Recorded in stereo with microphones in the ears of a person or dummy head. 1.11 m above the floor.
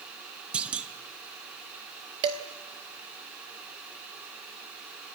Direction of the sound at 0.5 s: 10° right (ahead or behind).